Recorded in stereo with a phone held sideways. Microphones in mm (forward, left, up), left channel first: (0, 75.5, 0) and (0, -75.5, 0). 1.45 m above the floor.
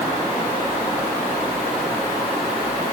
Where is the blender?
I don't hear a blender.